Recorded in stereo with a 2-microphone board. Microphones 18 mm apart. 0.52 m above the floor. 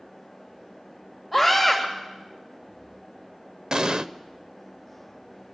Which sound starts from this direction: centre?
A scream, at 1.3 s.